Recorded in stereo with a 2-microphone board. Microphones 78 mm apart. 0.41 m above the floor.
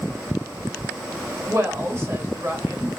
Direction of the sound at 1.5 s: 35° right (ahead or behind).